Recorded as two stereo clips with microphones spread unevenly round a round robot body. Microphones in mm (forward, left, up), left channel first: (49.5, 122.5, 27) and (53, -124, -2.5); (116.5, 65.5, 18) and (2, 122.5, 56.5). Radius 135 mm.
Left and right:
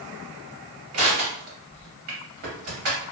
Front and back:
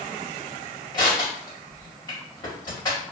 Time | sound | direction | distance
0.9 | crushing | 80° right | 1.7 m